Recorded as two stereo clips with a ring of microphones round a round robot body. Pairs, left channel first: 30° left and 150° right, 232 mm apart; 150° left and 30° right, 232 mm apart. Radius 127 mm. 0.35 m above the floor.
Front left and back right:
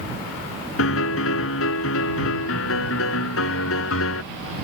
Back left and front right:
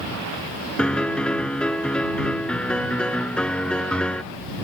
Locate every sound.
0.8 s a piano: 65° left